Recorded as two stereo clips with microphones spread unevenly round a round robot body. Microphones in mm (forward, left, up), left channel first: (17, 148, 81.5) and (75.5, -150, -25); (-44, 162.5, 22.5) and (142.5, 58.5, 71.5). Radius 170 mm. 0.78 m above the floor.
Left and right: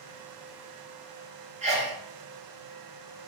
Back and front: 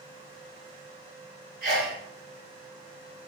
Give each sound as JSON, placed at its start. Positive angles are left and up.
{"t": 1.6, "sound": "a sneeze", "azimuth_deg": -70, "distance_m": 1.1}